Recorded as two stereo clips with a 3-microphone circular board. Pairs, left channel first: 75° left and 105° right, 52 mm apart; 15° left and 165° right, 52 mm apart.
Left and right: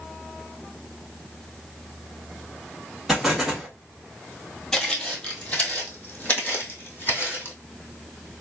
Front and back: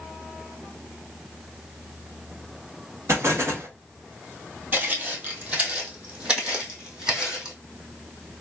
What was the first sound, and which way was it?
An explosion, 170° left.